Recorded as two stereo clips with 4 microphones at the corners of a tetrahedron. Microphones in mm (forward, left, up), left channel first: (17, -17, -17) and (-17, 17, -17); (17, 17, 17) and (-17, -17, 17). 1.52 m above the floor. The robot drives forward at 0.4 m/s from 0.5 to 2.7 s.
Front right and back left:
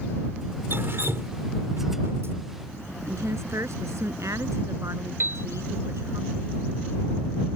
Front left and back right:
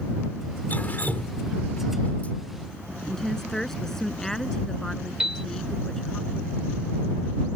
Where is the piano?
150° left.